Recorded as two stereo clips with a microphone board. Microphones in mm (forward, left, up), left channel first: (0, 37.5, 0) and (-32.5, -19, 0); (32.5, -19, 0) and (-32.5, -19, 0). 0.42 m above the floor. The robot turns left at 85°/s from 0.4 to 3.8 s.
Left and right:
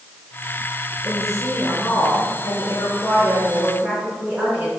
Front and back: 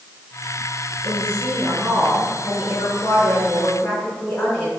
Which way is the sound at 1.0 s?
175° left.